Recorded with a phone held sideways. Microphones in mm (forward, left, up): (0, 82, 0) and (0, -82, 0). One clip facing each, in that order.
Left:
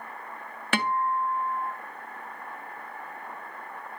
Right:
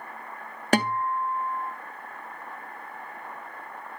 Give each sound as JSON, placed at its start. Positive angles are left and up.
{"t": 0.7, "sound": "a guitar", "side_deg": -40, "distance_m": 0.6}